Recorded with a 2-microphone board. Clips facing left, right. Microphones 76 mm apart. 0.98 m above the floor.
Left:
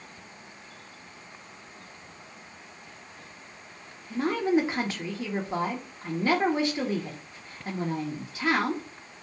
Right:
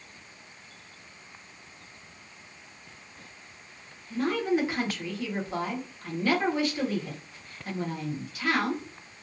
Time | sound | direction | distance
4.1 | a woman speaking | 25° left (ahead or behind) | 0.9 m